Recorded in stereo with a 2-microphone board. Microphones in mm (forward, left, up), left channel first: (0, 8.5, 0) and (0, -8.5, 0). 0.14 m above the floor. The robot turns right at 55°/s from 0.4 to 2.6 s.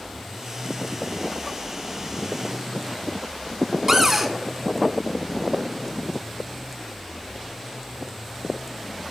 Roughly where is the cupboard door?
Right.